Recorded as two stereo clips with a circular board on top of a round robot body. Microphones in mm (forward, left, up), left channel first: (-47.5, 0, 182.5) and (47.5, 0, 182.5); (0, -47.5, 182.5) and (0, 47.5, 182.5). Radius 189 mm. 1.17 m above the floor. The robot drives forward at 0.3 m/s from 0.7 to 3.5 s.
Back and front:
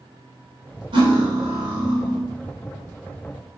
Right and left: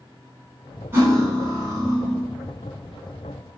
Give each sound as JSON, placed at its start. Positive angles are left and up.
{"t": 0.9, "sound": "cutlery clinking", "azimuth_deg": 25, "distance_m": 0.9}